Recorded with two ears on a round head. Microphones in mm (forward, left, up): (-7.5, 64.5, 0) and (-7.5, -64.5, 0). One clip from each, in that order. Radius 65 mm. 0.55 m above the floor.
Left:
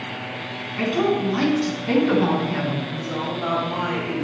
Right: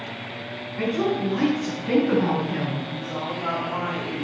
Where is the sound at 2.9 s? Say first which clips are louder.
Left 2 dB; 70° left (ahead or behind), 3.5 m.